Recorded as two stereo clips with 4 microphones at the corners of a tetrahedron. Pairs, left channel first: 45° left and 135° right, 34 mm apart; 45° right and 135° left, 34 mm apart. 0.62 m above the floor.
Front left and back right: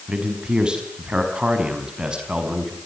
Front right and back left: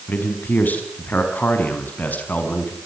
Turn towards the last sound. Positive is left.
turn(degrees=-75)